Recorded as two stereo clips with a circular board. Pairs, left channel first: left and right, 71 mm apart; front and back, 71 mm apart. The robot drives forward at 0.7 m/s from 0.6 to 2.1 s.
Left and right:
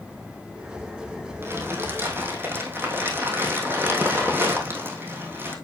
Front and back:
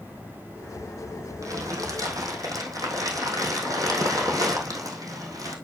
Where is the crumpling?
145° right, 3 m; by 5.5 s 150° right, 3.5 m.